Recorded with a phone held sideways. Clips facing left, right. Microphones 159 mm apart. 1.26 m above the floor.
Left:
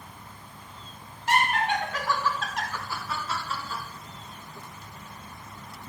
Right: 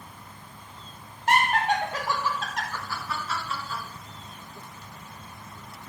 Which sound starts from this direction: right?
Laughter, at 1.3 s.